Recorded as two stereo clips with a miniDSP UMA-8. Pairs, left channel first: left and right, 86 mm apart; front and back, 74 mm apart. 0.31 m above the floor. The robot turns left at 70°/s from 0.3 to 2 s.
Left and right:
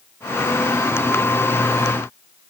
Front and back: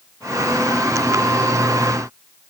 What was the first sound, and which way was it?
Only background noise.